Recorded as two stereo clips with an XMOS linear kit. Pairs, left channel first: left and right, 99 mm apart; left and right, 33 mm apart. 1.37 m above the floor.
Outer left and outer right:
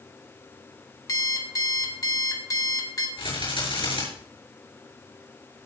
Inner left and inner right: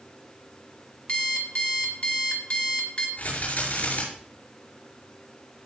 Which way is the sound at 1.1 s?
35° left (ahead or behind).